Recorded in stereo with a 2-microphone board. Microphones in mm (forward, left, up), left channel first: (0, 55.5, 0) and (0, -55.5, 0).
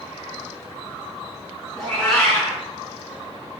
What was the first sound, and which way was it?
A cat meowing, 5° left (ahead or behind).